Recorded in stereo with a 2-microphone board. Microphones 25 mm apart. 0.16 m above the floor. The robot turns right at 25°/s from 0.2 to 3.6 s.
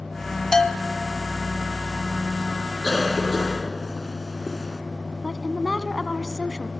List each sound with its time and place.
0.5 s a bell: 20° left (ahead or behind), 1.3 m; by 1.2 s 25° left (ahead or behind), 1.3 m
2.8 s a cough: 30° left (ahead or behind), 2.0 m; by 4.8 s 15° left (ahead or behind), 2.0 m
5.2 s a woman speaking: 10° right (ahead or behind), 1.5 m